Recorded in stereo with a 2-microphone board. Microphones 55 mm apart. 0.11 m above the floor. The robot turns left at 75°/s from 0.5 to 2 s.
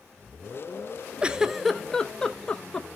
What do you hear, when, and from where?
1.2 s a giggle: 20° right (ahead or behind), 0.6 m; by 2.9 s 15° left (ahead or behind), 0.6 m